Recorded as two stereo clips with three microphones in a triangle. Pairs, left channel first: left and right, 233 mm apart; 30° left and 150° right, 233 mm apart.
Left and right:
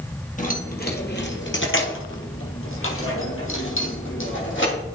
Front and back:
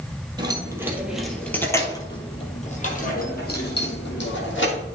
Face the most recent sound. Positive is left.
turn(degrees=60)